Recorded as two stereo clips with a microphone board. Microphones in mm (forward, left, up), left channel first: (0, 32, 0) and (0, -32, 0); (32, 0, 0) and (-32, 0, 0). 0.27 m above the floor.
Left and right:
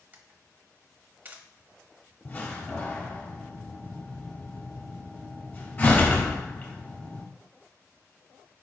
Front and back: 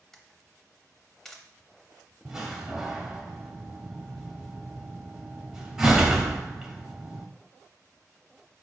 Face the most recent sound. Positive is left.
turn(degrees=105)